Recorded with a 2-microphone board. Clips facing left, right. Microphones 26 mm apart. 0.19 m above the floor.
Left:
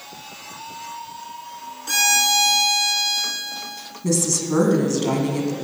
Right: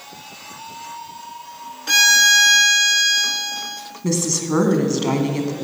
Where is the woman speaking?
20° right (ahead or behind), 1.8 m.